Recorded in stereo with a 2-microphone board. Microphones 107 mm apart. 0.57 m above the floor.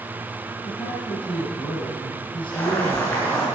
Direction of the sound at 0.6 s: 50° left (ahead or behind).